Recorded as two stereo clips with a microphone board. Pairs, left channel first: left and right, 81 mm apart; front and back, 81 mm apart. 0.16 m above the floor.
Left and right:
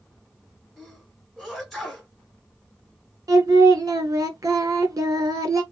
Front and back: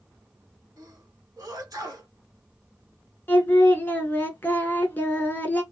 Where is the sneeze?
175° left, 1.8 m.